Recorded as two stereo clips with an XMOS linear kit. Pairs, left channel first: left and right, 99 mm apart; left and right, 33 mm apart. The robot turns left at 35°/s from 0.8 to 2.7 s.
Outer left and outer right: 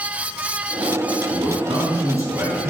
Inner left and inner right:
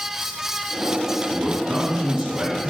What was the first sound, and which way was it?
A man speaking, 120° right.